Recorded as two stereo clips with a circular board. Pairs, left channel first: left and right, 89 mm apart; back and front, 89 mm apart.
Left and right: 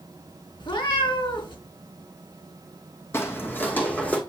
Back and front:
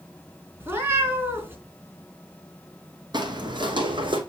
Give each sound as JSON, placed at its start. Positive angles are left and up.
{"t": 0.6, "sound": "a cat meowing", "azimuth_deg": 65, "distance_m": 3.0}
{"t": 3.1, "sound": "footsteps", "azimuth_deg": 30, "distance_m": 2.0}